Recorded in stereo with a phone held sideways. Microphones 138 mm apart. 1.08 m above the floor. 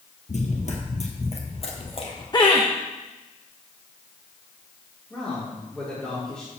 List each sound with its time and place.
0.3 s running footsteps: 55° left (ahead or behind), 1.8 m; by 2.2 s 45° left (ahead or behind), 2.5 m
2.3 s laughter: 30° left (ahead or behind), 0.9 m
5.1 s a man speaking: 5° left (ahead or behind), 2.5 m